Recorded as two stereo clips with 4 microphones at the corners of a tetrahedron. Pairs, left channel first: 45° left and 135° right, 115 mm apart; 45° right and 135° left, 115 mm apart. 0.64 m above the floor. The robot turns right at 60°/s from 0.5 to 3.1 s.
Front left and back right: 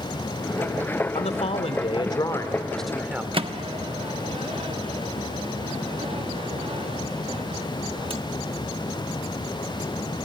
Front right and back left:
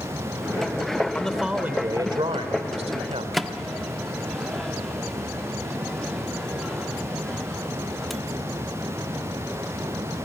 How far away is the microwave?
About 1.0 m.